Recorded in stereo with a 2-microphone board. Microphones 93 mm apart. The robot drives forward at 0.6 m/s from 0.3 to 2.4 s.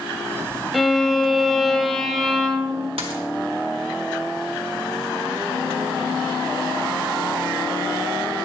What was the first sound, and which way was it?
A violin, centre (ahead or behind).